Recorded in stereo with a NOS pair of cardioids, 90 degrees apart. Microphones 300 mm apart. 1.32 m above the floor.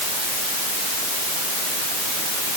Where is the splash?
I don't hear a splash.